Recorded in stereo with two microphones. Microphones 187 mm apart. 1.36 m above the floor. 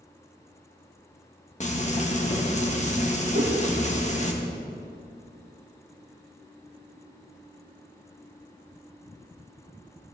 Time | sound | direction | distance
1.6 | frying | 40° left (ahead or behind) | 1.9 m
3.3 | a whoosh | 55° right (ahead or behind) | 2.5 m